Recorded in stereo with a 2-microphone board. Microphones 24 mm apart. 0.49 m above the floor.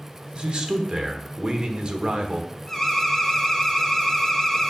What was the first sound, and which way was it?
A man speaking, 40° right (ahead or behind).